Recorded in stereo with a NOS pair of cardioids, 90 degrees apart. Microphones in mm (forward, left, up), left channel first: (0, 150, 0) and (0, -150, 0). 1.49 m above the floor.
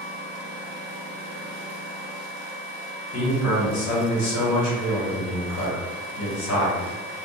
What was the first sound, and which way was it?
A man speaking, 65° left.